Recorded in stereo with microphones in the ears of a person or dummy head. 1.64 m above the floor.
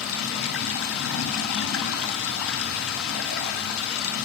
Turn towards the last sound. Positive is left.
turn(degrees=80)